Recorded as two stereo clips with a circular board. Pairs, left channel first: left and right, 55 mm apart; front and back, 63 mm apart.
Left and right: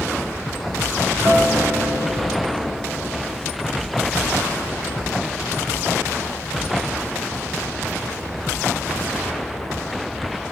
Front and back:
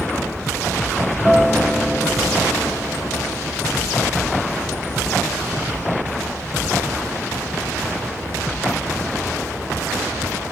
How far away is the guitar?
About 6 m.